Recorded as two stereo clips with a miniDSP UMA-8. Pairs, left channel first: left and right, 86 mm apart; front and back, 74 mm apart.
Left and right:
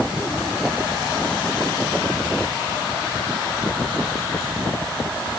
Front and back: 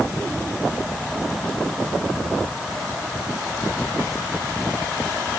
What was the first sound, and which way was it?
Only background noise.